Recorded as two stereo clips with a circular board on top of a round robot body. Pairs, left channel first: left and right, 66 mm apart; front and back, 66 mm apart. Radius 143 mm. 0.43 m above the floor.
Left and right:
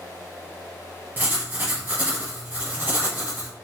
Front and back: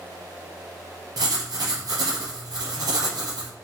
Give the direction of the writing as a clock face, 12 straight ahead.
5 o'clock.